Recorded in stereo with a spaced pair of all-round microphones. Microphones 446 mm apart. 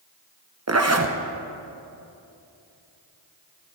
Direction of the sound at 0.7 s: 35° right (ahead or behind).